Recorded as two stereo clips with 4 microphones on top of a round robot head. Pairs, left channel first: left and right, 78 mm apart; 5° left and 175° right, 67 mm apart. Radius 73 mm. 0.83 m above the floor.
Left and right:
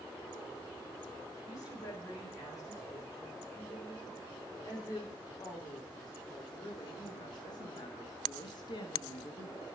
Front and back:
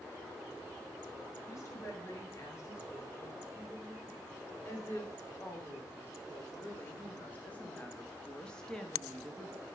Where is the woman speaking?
50° left, 5 m; by 9.7 s 100° left, 1.5 m.